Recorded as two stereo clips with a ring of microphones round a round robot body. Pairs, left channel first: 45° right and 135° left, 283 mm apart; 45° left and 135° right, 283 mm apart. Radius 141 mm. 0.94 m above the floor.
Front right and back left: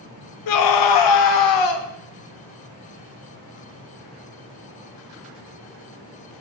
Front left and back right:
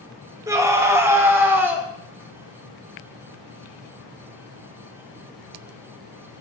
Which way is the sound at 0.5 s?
55° right.